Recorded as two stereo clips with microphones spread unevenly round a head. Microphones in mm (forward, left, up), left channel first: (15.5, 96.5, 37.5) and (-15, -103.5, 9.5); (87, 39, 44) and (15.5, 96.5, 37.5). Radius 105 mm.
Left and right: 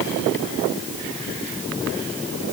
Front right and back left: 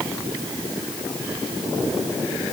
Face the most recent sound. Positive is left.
No sound to turn to.